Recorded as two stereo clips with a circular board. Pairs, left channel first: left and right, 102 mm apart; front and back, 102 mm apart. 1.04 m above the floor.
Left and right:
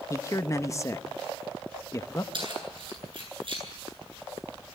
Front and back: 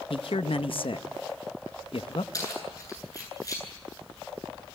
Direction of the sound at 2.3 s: 55° right.